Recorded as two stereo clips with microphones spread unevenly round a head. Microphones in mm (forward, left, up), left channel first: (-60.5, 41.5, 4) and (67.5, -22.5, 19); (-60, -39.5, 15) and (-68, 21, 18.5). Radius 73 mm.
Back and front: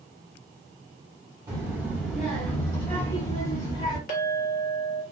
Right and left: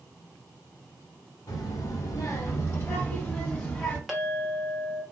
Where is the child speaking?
85° right, 1.0 m; by 4.0 s 175° right, 1.4 m.